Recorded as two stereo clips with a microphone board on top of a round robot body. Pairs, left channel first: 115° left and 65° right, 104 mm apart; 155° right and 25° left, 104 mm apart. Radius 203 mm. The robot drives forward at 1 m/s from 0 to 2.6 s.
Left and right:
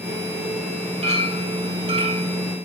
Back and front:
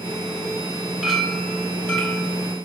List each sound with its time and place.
1.0 s a clink: 70° right, 2.5 m; by 2.3 s 100° right, 2.5 m